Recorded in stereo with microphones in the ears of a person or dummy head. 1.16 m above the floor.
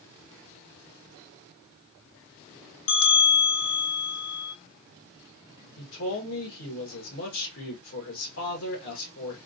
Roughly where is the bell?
Left.